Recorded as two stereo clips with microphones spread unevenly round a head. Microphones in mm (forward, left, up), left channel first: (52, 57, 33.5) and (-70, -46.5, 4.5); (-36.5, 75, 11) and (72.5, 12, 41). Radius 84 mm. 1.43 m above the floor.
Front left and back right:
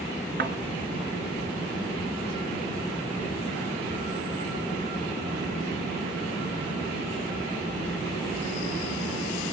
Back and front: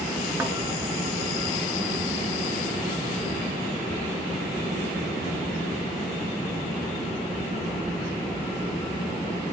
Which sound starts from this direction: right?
A thud, at 0.4 s.